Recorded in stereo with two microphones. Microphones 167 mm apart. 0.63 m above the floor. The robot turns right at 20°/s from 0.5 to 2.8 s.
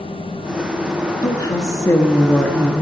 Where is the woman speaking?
25° left (ahead or behind), 1.2 m; by 2.8 s 10° left (ahead or behind), 1.2 m.